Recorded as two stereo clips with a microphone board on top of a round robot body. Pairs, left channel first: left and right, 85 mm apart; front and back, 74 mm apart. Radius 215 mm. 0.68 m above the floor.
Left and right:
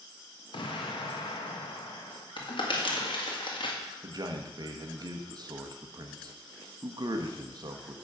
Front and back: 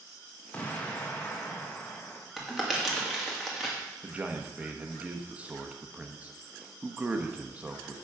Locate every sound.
0.5 s an explosion: 70° left, 1.6 m
2.4 s crumpling: 95° left, 2 m
4.0 s a man speaking: 110° right, 1.3 m